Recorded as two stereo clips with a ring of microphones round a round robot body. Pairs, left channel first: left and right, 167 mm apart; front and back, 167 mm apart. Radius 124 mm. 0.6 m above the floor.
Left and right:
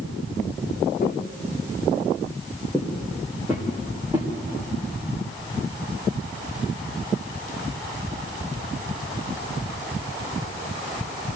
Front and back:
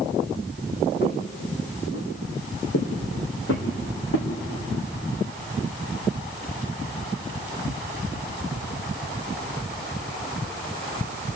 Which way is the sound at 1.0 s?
25° left.